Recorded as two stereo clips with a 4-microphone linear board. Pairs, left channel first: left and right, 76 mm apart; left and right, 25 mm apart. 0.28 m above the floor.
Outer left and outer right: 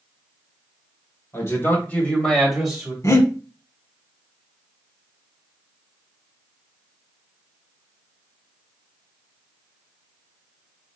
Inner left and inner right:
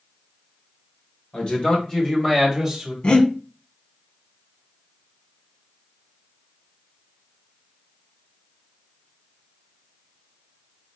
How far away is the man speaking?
About 1.9 m.